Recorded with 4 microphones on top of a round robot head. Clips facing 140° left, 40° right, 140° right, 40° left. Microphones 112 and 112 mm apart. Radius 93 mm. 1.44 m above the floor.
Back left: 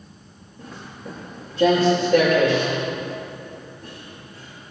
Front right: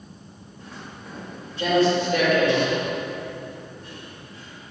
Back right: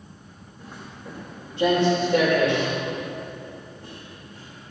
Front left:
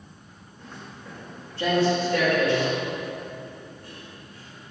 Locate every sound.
0.6 s footsteps: 140° left, 5 m; by 4.7 s 170° left, 6.5 m